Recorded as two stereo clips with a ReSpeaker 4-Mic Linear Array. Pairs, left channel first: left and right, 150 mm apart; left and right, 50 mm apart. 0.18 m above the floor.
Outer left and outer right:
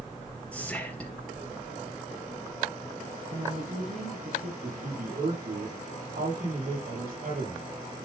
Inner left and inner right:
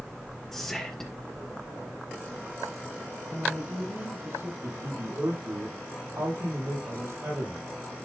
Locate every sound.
0.5 s whispering: 10° left (ahead or behind), 1.5 m
3.3 s a woman speaking: 65° right (ahead or behind), 2.5 m
4.6 s a man speaking: 75° right (ahead or behind), 5.5 m